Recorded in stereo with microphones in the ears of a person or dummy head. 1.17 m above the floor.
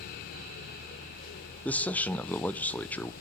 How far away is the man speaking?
About 0.5 m.